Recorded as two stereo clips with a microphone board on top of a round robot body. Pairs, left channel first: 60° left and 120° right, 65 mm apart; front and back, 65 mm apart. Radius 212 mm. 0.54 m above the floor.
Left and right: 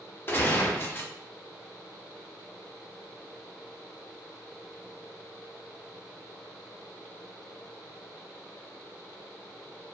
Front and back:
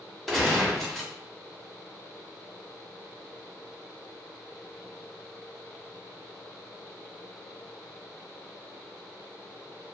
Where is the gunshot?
85° left, 1.3 m.